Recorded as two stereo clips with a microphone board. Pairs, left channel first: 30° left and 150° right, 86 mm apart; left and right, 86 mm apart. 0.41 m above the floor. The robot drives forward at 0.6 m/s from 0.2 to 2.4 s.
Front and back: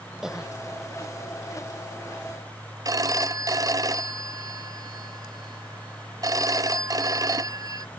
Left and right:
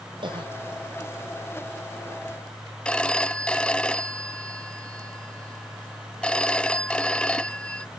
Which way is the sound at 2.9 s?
165° left.